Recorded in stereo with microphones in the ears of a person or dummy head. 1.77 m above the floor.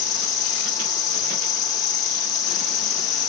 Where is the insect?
25° left (ahead or behind), 1.2 m.